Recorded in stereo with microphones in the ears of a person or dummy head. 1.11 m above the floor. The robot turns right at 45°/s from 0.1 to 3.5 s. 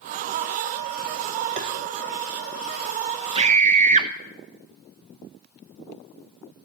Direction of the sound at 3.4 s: 25° right (ahead or behind).